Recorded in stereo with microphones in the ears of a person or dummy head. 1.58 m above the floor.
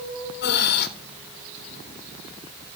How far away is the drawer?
I don't hear a drawer.